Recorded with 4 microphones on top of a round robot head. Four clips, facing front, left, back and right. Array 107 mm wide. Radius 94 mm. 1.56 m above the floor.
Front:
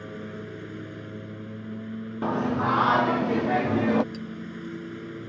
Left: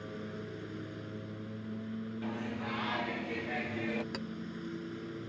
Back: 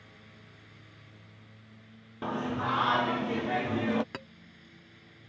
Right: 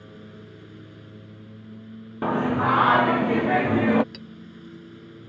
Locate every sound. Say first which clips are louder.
0.0 s a lawn mower: left 2 dB, front 19 dB; 10° left
2.2 s singing: right 19 dB, front 6 dB; 65° right
4.1 s a clink: left 2 dB, front 6 dB; 155° left